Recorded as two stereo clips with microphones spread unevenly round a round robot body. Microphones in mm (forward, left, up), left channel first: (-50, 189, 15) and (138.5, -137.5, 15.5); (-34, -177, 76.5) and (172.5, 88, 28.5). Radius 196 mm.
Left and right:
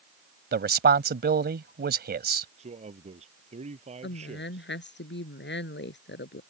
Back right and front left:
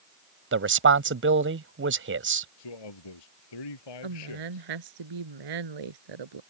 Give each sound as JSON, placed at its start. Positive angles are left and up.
{"t": 0.5, "sound": "a man speaking", "azimuth_deg": 5}
{"t": 2.6, "sound": "a man speaking", "azimuth_deg": -135}
{"t": 4.0, "sound": "a woman speaking", "azimuth_deg": 60}